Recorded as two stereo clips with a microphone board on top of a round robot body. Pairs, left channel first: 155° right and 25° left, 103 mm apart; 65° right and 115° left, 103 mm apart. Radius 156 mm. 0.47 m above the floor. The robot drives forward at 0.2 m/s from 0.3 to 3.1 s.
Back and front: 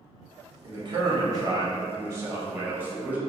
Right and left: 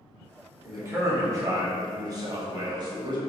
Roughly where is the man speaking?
Ahead left.